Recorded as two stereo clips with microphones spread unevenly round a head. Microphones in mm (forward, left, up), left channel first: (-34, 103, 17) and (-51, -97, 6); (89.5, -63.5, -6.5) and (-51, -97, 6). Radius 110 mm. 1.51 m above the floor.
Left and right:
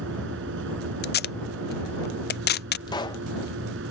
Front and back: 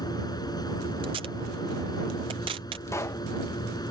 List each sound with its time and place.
0.0 s a machine running: 50° right
1.0 s tape being pulled: 125° left
2.9 s a pop: 70° left